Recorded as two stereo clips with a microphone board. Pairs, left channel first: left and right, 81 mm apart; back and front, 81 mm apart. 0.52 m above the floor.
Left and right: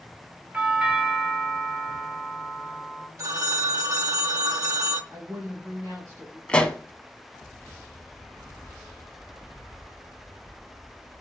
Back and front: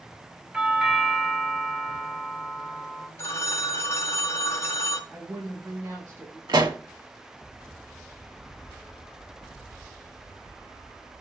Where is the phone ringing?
130° right, 0.7 m.